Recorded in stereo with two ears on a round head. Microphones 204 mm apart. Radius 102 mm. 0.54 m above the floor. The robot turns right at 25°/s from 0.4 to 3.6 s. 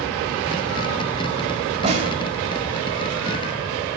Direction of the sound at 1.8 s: 30° right (ahead or behind).